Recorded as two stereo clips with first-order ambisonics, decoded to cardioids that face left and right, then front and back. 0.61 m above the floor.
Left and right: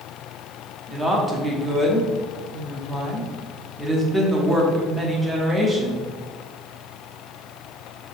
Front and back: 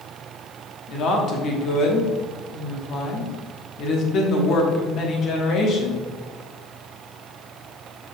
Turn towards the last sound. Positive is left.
turn(degrees=-20)